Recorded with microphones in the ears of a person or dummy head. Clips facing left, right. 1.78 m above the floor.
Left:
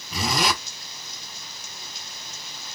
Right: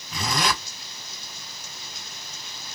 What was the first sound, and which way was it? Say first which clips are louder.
A zipper: left 2 dB; 15° left (ahead or behind).